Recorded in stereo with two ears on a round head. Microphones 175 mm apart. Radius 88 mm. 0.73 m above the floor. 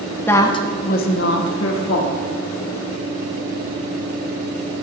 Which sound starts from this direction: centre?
A woman speaking, at 0.3 s.